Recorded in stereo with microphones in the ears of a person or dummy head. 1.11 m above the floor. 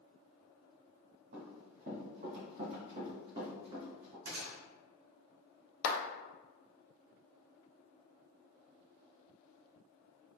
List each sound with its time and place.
1.3 s running footsteps: 40° right (ahead or behind), 1.6 m; by 4.2 s 25° right (ahead or behind), 3 m
4.2 s a gunshot: 50° right (ahead or behind), 1.3 m
5.8 s a clap: 65° left (ahead or behind), 0.8 m